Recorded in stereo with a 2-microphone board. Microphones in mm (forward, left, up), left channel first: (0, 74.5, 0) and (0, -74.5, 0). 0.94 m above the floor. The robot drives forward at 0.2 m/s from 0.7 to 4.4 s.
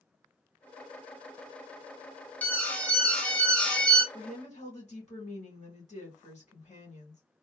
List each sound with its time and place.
2.4 s an alarm: 10° left (ahead or behind), 0.6 m; by 4.0 s 5° left (ahead or behind), 0.8 m
4.1 s a woman speaking: 45° left (ahead or behind), 1.8 m